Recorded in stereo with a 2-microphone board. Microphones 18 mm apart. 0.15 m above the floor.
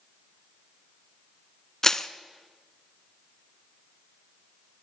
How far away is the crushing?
About 0.6 m.